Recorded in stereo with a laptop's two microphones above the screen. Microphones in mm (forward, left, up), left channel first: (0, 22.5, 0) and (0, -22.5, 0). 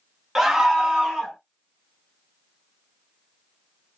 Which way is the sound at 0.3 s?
5° right (ahead or behind).